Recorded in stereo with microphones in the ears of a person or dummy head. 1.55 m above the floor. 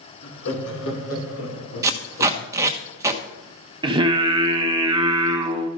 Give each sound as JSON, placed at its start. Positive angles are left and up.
{"t": 0.2, "sound": "laughter", "side_deg": 60, "distance_m": 3.0}
{"t": 1.8, "sound": "tape being pulled", "side_deg": -15, "distance_m": 1.2}
{"t": 3.8, "sound": "singing", "side_deg": -20, "distance_m": 1.0}